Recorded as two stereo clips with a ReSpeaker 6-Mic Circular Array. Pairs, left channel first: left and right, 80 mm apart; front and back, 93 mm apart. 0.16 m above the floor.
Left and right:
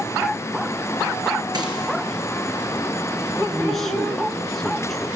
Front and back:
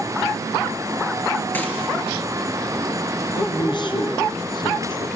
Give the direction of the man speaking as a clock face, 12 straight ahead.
12 o'clock.